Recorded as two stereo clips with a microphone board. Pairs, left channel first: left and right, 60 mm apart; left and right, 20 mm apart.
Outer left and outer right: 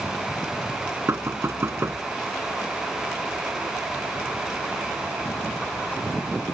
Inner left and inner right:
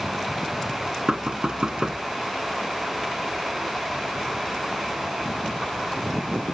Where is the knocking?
45° right (ahead or behind).